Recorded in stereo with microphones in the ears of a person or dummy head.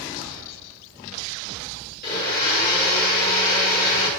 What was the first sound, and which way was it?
A blender, 50° left (ahead or behind).